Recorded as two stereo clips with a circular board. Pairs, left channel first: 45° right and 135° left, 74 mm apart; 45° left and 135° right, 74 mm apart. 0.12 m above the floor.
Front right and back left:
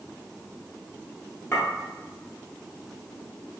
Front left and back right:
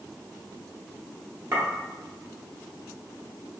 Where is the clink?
90° right, 1.6 m.